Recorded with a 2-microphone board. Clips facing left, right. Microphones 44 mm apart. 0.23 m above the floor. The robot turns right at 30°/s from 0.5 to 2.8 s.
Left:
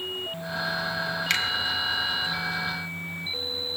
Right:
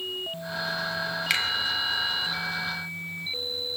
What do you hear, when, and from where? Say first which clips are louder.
1.3 s a finger snap: even; 5° right (ahead or behind), 0.8 m